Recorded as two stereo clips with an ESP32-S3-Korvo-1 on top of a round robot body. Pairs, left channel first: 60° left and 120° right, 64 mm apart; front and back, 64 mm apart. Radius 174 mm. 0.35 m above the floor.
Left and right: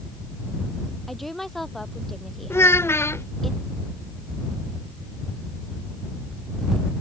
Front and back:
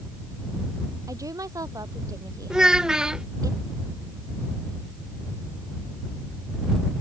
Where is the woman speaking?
145° left.